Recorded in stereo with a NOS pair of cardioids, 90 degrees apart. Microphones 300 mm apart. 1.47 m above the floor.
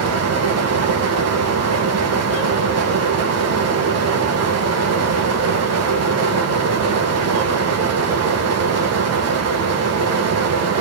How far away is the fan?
About 1.6 m.